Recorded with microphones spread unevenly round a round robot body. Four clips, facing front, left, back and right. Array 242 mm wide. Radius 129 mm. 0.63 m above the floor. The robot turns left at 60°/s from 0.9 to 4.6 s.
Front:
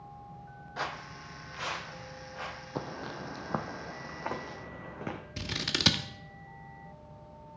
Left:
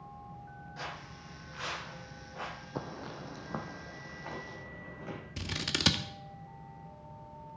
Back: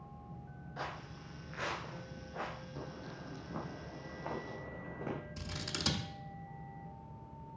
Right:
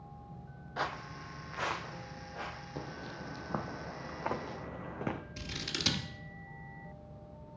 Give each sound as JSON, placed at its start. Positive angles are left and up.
{"t": 0.8, "sound": "footsteps", "azimuth_deg": -55, "distance_m": 1.1}
{"t": 2.8, "sound": "footsteps", "azimuth_deg": 30, "distance_m": 1.1}
{"t": 5.4, "sound": "scissors", "azimuth_deg": 45, "distance_m": 0.9}